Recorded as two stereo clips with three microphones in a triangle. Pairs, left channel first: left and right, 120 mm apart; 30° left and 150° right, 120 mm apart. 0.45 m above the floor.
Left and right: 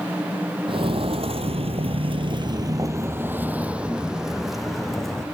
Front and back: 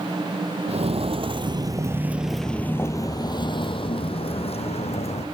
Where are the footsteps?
125° right, 1.0 m; by 5.3 s 5° left, 1.7 m.